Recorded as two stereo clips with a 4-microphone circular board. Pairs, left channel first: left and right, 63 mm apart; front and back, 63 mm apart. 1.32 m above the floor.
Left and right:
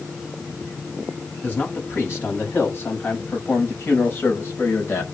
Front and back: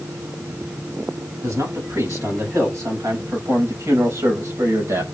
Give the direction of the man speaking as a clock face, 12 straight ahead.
7 o'clock.